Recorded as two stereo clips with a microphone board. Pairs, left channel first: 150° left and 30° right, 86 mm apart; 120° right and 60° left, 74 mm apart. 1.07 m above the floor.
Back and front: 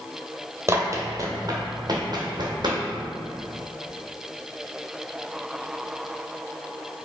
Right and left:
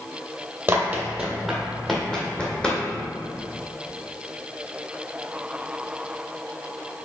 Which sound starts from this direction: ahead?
Running footsteps, at 0.7 s.